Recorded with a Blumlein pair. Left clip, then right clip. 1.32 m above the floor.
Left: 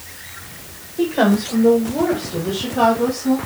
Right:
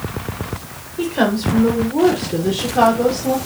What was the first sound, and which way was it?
A woman speaking, 5° right.